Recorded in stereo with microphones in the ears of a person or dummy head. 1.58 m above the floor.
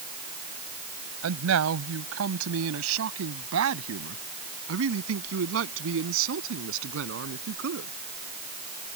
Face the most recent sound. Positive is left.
turn(degrees=-80)